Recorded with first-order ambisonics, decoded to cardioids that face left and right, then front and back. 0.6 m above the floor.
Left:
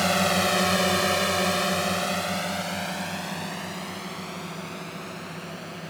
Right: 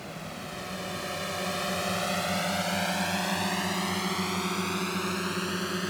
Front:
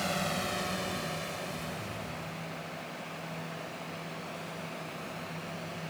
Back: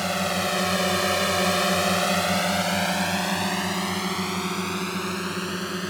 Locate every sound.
0.0 s a drone: 110° left; by 5.9 s 145° right